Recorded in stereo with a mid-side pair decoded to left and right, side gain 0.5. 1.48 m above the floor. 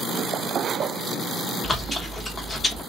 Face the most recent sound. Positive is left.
turn(degrees=25)